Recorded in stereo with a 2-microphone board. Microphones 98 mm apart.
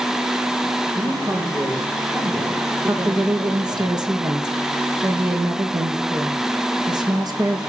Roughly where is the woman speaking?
Right.